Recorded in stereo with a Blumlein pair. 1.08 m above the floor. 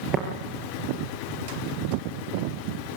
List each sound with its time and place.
0.1 s tapping: 20° right, 3.5 m